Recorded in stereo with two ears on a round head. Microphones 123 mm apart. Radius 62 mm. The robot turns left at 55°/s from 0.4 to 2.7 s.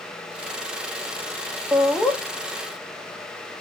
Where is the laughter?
10° right (ahead or behind), 1.5 m; by 2.2 s 20° left (ahead or behind), 1.5 m.